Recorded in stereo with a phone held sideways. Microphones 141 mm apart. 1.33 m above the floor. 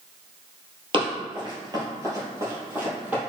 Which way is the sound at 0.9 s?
35° right (ahead or behind).